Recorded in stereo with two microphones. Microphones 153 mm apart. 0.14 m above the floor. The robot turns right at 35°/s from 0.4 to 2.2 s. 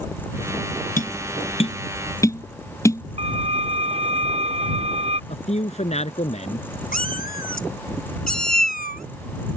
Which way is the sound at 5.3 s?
45° left (ahead or behind).